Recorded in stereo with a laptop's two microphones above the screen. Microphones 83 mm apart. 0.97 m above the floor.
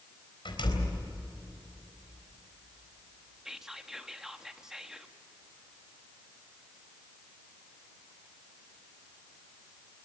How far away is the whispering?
About 2 m.